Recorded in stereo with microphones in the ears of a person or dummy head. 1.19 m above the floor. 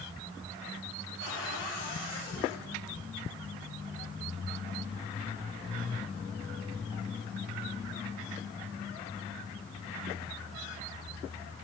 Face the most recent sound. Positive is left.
turn(degrees=60)  # may be behind; listen again after turning